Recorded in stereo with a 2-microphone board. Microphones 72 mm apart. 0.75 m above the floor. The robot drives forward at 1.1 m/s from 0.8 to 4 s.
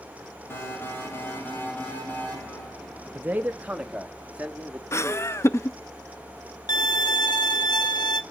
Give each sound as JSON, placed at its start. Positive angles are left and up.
{"t": 0.5, "sound": "an alarm", "side_deg": 30, "distance_m": 5.0}
{"t": 3.1, "sound": "a man speaking", "side_deg": -25, "distance_m": 0.9}
{"t": 4.9, "sound": "laughter", "side_deg": 35, "distance_m": 0.6}
{"t": 6.7, "sound": "a violin", "side_deg": 70, "distance_m": 1.2}